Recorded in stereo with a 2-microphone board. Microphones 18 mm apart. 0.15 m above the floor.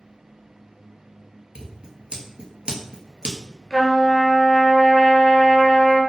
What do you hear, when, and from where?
1.6 s scissors: 55° right (ahead or behind), 0.6 m
3.7 s a trumpet: 25° left (ahead or behind), 0.6 m